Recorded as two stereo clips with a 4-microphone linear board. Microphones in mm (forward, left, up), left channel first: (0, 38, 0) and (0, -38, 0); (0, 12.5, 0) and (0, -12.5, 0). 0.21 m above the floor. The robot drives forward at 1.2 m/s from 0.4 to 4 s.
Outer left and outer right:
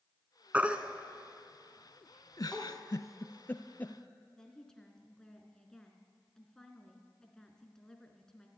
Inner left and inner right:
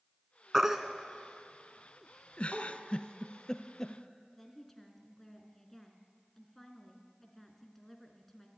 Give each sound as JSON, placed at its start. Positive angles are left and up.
{"t": 0.5, "sound": "a baby crying", "side_deg": -20, "distance_m": 1.2}
{"t": 2.4, "sound": "a giggle", "side_deg": 55, "distance_m": 0.7}
{"t": 4.4, "sound": "a woman speaking", "side_deg": 10, "distance_m": 2.5}